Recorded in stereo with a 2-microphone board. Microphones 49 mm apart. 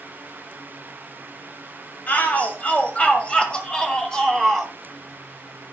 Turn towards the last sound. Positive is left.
turn(degrees=5)  # may be behind; listen again after turning